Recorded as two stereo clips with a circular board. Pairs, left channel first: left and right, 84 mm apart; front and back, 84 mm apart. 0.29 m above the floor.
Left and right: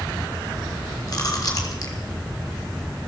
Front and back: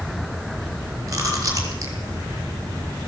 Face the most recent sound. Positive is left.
turn(degrees=130)